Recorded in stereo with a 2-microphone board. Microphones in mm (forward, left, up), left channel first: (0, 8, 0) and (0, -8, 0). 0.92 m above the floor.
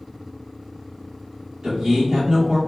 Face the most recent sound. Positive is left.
turn(degrees=-60)  # may be behind; listen again after turning